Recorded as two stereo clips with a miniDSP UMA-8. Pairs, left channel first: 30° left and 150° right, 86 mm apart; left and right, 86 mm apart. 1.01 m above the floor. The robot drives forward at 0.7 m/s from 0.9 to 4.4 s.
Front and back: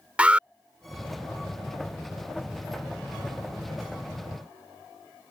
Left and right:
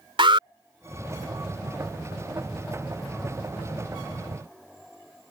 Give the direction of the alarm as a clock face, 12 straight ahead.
2 o'clock.